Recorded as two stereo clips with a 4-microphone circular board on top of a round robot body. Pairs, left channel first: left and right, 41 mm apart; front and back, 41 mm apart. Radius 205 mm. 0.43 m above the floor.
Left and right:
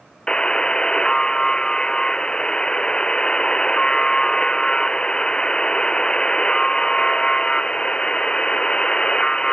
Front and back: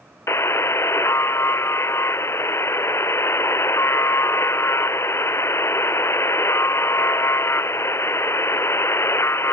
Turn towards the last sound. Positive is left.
turn(degrees=20)